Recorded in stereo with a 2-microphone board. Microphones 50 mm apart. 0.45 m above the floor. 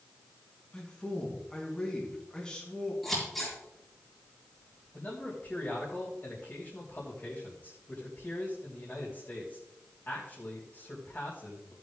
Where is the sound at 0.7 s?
15° left (ahead or behind), 4 m.